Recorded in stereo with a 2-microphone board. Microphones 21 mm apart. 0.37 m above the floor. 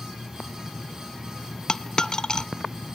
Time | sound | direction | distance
1.7 | a dropped coin | 45° left (ahead or behind) | 0.5 m